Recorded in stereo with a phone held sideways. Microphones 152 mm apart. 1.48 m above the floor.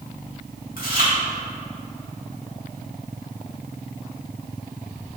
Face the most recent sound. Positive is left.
turn(degrees=75)  # may be behind; listen again after turning